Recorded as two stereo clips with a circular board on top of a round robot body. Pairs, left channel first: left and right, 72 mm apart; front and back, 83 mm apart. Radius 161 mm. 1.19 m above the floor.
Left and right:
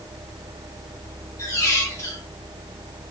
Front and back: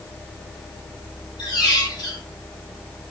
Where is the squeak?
45° left, 0.8 m.